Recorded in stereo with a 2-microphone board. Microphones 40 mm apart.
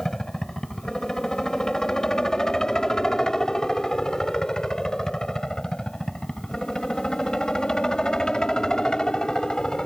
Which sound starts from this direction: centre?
A helicopter, at 0.0 s.